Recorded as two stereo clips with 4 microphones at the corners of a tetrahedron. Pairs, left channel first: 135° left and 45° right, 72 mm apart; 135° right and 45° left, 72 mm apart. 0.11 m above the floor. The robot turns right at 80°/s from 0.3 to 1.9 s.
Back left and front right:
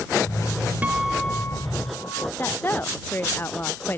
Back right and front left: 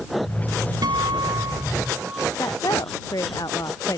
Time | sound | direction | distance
0.8 | a guitar | 25° left | ?
2.4 | a woman speaking | 165° right | ?